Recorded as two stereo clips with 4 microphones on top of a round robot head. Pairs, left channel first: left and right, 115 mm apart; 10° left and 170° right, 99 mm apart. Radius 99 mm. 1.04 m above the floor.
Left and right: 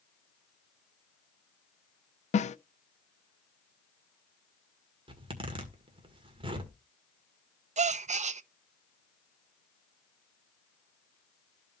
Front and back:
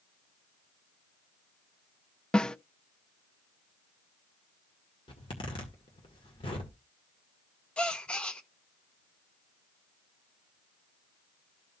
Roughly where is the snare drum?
Left.